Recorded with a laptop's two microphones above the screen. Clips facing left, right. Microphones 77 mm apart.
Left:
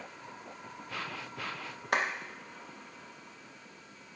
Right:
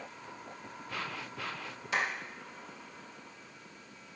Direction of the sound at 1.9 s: 55° left (ahead or behind).